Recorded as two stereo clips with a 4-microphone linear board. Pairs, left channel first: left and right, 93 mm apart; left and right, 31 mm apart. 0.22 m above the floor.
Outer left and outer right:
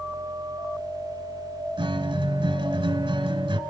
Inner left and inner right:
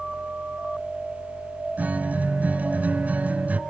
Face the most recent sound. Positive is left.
turn(degrees=-65)  # may be behind; listen again after turning